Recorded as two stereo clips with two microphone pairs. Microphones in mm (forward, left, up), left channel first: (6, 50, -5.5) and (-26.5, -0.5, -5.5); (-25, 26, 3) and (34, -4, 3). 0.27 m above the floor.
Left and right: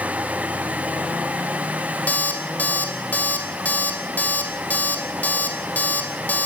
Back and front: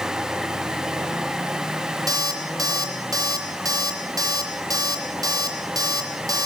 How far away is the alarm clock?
About 4.5 m.